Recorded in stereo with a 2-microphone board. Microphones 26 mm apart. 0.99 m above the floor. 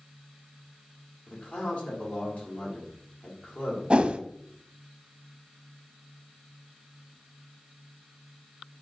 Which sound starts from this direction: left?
A man speaking, at 1.3 s.